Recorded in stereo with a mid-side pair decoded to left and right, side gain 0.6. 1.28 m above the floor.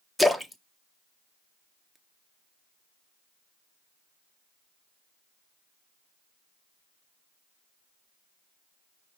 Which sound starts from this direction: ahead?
A splash, at 0.2 s.